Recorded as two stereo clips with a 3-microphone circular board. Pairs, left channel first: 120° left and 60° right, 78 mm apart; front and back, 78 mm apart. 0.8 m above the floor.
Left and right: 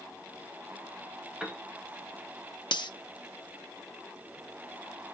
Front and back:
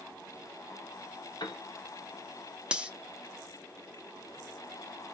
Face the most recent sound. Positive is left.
turn(degrees=105)